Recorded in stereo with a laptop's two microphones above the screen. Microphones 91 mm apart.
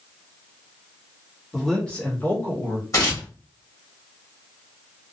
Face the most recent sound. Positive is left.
turn(degrees=40)  # may be behind; listen again after turning